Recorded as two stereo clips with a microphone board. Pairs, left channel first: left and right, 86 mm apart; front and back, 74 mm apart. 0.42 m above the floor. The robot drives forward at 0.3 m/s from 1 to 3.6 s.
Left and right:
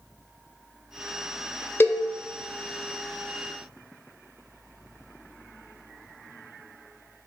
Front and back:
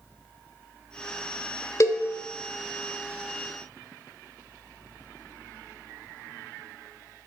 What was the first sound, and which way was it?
A cowbell, 30° left.